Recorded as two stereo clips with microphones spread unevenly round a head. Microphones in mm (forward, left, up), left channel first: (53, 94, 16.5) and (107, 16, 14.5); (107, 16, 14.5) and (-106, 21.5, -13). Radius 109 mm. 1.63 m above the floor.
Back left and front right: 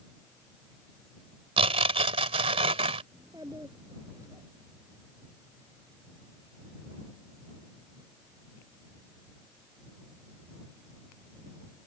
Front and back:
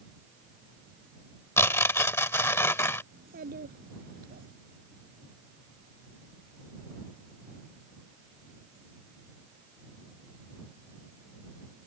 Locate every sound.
1.6 s tearing paper: 75° right
3.1 s a child speaking: 130° right